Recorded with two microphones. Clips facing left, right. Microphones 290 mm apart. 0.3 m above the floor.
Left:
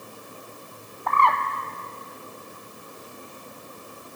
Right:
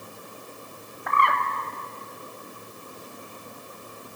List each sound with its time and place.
1.1 s a bird: 20° right (ahead or behind), 0.7 m